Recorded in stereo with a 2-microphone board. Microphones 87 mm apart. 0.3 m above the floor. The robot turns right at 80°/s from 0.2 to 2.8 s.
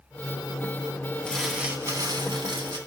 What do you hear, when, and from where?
1.3 s crumpling: 165° left, 2.5 m; by 2.8 s 70° right, 2.5 m